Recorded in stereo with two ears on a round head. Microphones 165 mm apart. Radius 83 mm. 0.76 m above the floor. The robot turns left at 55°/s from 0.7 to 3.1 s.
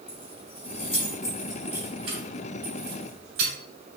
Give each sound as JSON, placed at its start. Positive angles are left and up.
{"t": 0.1, "sound": "keys jangling", "side_deg": 45, "distance_m": 2.5}